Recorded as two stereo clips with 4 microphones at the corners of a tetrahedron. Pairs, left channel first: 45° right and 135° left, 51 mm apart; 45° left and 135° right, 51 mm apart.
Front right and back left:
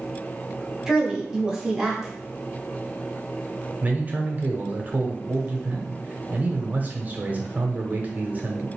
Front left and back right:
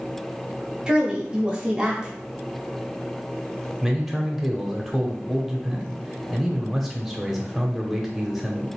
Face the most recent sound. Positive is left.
turn(degrees=140)